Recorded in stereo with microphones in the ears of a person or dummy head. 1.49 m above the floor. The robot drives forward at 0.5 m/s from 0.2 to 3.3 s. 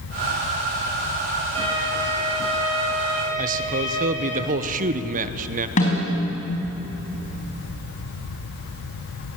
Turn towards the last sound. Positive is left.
turn(degrees=40)  # may be behind; listen again after turning